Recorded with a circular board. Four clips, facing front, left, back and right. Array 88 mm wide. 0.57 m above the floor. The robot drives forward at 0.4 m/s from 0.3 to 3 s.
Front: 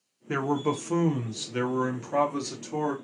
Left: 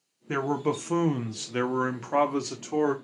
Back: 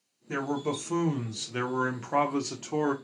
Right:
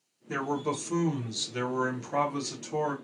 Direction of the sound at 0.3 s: 45° left.